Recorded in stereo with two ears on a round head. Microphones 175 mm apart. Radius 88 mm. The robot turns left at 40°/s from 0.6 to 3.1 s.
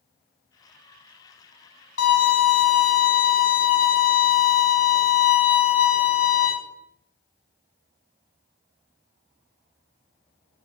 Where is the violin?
105° left, 1.6 m; by 6.5 s 60° left, 1.6 m.